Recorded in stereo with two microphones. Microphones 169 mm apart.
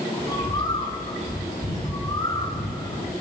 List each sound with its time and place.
0.2 s a bird: 25° left (ahead or behind), 6 m